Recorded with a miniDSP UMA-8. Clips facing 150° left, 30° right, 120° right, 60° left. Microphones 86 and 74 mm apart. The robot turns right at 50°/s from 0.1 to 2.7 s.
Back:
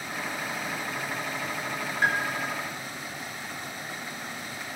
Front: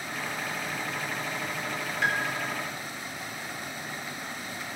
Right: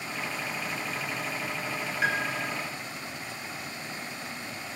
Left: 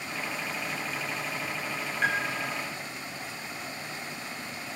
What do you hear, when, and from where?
2.0 s a piano: 160° left, 1.8 m; by 2.5 s 175° right, 1.8 m